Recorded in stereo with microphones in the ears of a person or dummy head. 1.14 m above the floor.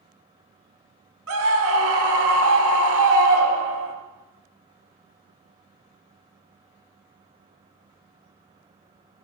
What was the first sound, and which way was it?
A scream, 70° right (ahead or behind).